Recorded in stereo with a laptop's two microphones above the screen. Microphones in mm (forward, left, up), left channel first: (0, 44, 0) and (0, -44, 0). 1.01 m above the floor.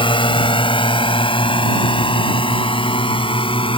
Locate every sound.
0.0 s a drone: 80° left; by 3.8 s 85° left